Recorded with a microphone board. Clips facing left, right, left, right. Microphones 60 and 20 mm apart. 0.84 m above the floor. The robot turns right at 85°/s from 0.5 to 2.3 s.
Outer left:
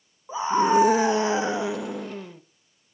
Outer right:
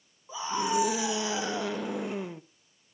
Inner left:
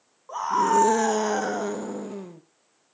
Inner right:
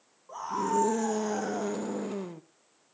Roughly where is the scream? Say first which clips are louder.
Outer left 9 dB, inner left 8 dB; ahead left.